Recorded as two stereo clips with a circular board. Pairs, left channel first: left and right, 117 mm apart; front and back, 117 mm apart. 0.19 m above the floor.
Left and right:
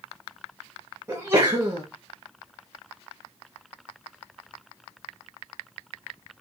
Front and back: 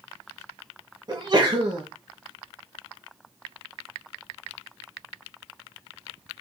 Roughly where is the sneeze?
Behind right.